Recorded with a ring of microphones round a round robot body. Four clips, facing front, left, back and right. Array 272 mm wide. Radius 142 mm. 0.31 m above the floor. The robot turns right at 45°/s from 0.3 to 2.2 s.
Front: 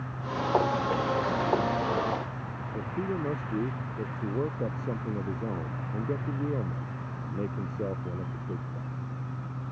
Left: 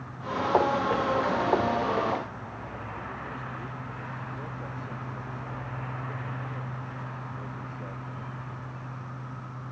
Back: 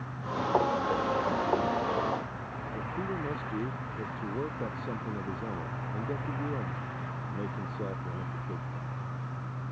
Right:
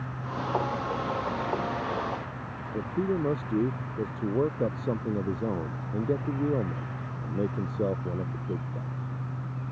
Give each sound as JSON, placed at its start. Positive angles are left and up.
{"t": 2.7, "sound": "a man speaking", "azimuth_deg": -75}